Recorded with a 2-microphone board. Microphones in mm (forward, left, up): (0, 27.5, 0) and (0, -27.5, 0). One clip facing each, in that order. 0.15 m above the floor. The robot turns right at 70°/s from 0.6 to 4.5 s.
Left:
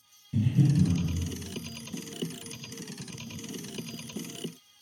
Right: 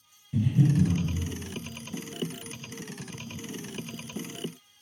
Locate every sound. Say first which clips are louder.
0.3 s breathing: right 1 dB; 10° right (ahead or behind), 1.3 m; by 1.0 s 30° right (ahead or behind), 1.3 m